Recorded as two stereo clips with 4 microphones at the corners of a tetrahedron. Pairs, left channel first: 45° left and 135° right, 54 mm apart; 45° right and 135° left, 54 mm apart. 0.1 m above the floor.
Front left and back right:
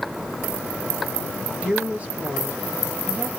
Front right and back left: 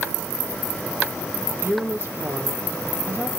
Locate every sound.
1.6 s a woman speaking: 165° left, 2 m